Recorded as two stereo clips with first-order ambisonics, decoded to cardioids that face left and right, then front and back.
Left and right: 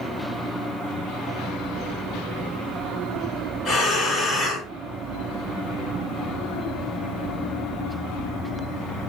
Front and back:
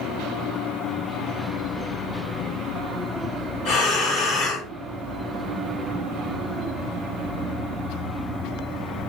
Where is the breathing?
40° left, 1.9 m.